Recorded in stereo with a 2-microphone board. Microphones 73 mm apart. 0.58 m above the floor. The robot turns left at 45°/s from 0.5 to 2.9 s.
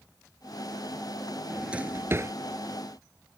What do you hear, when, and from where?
1.5 s a drawer: 5° right (ahead or behind); by 2.3 s 40° right (ahead or behind)